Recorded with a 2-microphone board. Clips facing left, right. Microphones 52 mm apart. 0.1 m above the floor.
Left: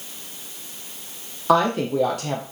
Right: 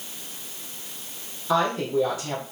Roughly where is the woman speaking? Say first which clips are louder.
Left 4 dB; left.